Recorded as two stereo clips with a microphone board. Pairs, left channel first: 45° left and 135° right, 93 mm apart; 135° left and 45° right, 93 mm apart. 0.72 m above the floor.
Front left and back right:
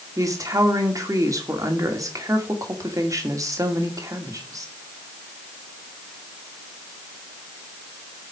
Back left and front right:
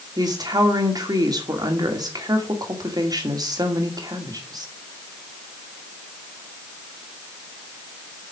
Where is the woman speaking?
85° right, 2 m.